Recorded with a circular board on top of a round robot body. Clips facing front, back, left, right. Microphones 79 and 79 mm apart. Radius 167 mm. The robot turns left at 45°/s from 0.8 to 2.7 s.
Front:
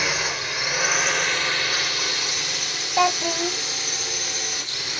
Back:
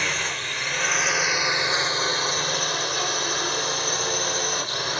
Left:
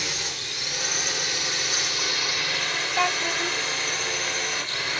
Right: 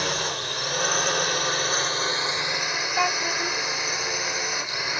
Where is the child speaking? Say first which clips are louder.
Front 6 dB, even; 5° right.